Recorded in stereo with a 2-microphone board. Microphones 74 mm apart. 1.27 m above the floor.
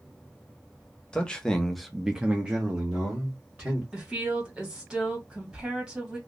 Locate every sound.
1.1 s a man speaking: 10° left (ahead or behind), 0.7 m; by 3.8 s 20° right (ahead or behind), 1.4 m
3.9 s a woman speaking: 10° right (ahead or behind), 1.5 m